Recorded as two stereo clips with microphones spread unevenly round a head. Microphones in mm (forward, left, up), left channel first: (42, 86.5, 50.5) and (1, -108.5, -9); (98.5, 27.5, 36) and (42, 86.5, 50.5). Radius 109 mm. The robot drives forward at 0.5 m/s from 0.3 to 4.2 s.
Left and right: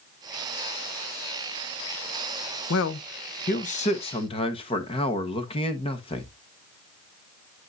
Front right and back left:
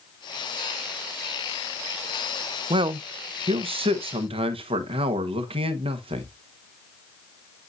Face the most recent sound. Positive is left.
turn(degrees=145)